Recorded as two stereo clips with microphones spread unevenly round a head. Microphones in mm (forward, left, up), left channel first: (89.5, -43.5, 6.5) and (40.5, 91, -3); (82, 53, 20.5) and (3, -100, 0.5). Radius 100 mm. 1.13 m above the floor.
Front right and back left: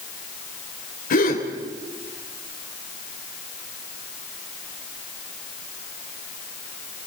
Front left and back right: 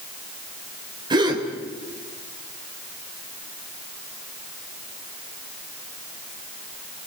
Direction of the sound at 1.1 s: 50° right.